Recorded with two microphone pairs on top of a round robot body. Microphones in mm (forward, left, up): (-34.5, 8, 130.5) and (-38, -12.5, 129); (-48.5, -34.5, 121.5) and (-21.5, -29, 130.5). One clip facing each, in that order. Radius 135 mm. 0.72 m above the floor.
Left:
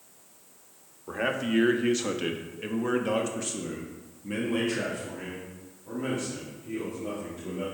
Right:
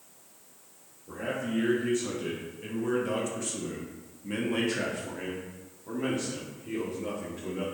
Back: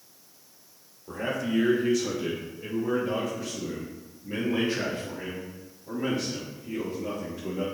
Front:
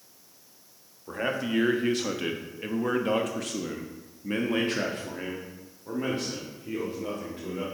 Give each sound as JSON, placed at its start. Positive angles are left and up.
{"t": 1.1, "sound": "a man speaking", "azimuth_deg": 75, "distance_m": 1.6}